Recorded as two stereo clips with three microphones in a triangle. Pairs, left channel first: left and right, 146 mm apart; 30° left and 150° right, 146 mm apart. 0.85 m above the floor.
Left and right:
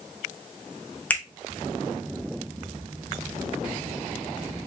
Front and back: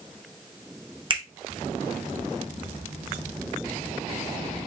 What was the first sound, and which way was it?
A finger snap, 170° left.